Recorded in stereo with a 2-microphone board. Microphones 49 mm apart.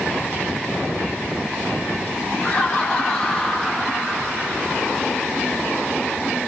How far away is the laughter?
About 1.6 m.